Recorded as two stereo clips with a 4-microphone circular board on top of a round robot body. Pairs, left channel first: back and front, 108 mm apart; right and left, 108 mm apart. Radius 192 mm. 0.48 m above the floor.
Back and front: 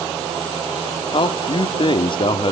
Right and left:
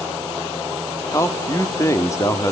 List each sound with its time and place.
1.1 s a man speaking: 150° right, 1.6 m